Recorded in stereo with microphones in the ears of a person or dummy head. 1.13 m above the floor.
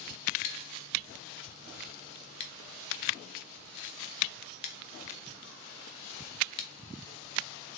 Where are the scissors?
30° left (ahead or behind), 0.6 m.